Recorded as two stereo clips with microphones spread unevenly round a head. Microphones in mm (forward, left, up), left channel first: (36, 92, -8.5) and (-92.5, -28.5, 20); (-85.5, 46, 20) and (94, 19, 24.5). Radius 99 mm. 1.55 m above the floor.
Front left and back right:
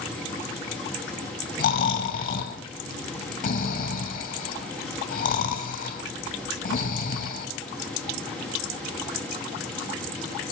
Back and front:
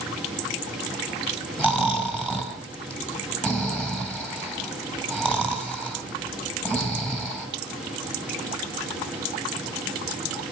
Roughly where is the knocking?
No knocking in this recording.